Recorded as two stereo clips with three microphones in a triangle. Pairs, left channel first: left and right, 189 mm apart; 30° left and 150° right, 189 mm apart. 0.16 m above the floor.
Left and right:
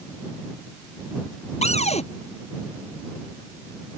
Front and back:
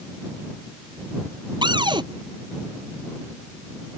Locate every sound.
1.6 s a cupboard door: 145° left